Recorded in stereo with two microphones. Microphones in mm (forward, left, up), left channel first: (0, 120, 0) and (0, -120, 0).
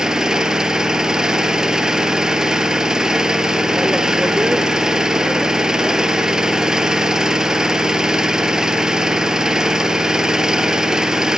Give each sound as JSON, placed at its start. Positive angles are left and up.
{"t": 0.0, "sound": "an engine running", "side_deg": 0, "distance_m": 1.0}